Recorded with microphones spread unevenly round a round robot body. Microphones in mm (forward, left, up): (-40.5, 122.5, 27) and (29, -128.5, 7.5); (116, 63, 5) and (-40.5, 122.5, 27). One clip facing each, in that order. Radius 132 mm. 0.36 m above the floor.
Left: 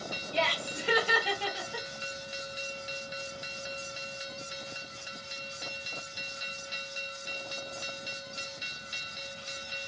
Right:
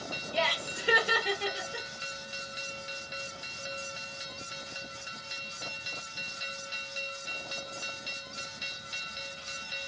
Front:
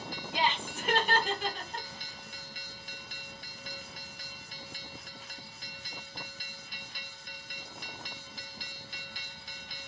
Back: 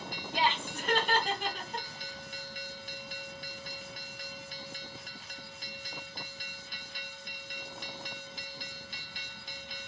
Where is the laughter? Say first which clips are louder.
Left 1 dB, back 1 dB; straight ahead, 1.0 m; by 1.9 s 105° right, 1.2 m.